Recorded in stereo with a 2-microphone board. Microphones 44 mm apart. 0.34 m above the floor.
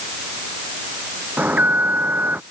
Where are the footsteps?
I don't hear footsteps.